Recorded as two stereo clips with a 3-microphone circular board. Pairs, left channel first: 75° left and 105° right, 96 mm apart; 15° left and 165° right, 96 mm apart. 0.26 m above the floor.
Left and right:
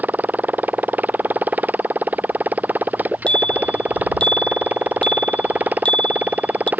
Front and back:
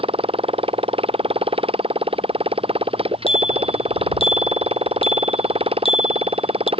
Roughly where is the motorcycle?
Behind.